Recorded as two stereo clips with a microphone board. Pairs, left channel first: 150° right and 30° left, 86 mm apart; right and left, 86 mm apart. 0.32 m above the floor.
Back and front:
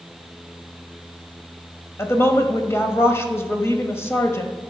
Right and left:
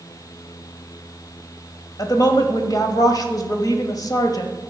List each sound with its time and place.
2.0 s a woman speaking: 100° right, 1.4 m